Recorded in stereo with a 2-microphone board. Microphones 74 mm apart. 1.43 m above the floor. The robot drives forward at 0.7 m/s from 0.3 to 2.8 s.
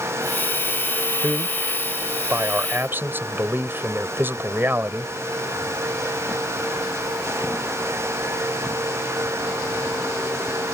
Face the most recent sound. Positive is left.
turn(degrees=-30)  # may be behind; listen again after turning